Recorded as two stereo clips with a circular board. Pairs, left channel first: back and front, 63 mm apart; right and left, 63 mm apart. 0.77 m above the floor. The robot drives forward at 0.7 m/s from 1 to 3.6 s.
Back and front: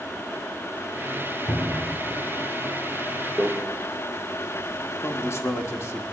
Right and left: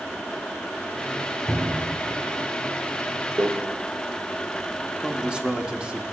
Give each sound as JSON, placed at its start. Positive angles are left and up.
{"t": 1.5, "sound": "a cupboard door", "azimuth_deg": -170, "distance_m": 2.0}
{"t": 3.4, "sound": "a microwave", "azimuth_deg": 80, "distance_m": 1.8}
{"t": 5.0, "sound": "a man speaking", "azimuth_deg": 160, "distance_m": 1.1}